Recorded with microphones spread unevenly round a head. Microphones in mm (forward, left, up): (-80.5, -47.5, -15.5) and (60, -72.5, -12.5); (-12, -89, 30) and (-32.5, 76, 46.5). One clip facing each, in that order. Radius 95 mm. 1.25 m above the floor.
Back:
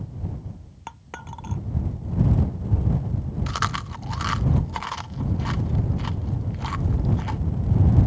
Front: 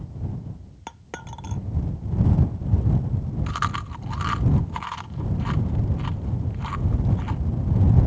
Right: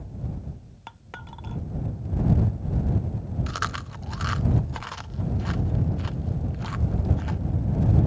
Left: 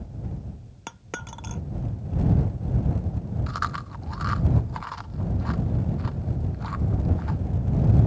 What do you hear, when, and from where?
0.9 s a dropped coin: 55° left
3.5 s chewing: 145° right